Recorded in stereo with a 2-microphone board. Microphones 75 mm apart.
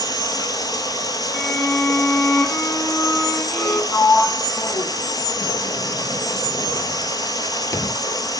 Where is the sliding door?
45° left (ahead or behind), 0.5 m.